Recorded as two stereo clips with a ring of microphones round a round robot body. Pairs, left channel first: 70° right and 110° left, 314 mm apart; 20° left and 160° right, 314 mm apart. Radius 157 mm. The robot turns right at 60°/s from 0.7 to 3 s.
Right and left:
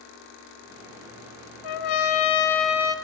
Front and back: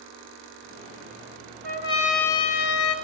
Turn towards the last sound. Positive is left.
turn(degrees=-15)